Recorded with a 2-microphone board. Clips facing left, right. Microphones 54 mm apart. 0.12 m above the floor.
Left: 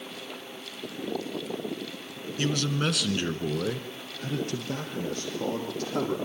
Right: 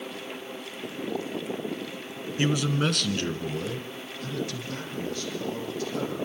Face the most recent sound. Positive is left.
turn(degrees=65)  # may be behind; listen again after turning